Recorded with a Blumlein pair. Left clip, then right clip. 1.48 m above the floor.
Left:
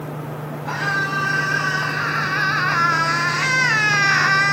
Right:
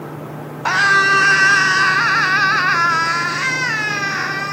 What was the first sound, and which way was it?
A scream, 50° right.